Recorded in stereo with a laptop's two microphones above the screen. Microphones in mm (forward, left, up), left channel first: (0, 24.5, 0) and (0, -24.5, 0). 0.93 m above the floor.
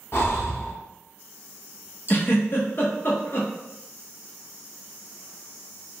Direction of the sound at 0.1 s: 50° left (ahead or behind).